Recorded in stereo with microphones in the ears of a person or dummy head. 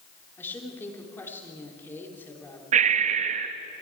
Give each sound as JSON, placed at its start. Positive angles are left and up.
{"t": 0.4, "sound": "a woman speaking", "side_deg": 10, "distance_m": 3.5}
{"t": 2.7, "sound": "breathing", "side_deg": -40, "distance_m": 0.9}